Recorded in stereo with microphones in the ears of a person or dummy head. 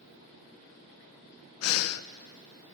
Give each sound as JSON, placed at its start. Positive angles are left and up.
{"t": 1.6, "sound": "breathing", "side_deg": 90, "distance_m": 0.5}